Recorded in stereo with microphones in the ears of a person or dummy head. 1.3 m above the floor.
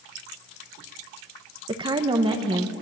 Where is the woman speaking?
20° right (ahead or behind), 1.4 m.